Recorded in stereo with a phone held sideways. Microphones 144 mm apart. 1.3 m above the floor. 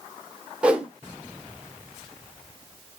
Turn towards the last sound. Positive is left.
turn(degrees=-5)  # may be behind; listen again after turning